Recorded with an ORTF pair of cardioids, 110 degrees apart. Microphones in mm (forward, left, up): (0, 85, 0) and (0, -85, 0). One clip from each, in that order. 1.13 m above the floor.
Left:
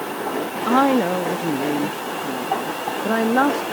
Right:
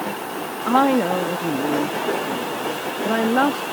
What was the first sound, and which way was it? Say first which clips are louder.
A woman speaking: even; 5° left.